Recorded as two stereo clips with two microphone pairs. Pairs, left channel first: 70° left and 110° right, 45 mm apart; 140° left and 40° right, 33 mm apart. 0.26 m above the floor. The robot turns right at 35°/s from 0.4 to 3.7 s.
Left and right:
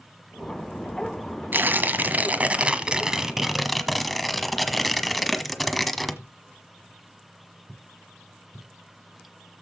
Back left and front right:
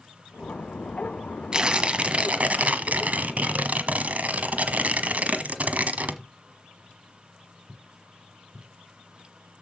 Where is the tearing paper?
100° right, 1.2 m; by 6.2 s 20° right, 1.2 m.